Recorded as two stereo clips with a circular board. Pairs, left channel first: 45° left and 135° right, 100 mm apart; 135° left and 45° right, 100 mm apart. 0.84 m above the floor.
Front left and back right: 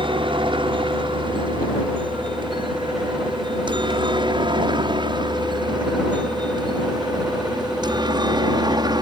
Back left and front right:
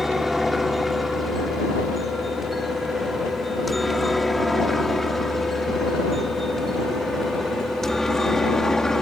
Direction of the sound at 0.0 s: 135° right.